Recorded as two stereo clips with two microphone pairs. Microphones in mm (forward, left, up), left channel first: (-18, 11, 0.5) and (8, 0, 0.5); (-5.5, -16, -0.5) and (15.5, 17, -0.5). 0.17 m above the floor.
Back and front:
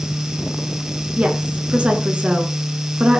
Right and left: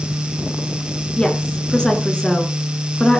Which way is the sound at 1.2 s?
60° right.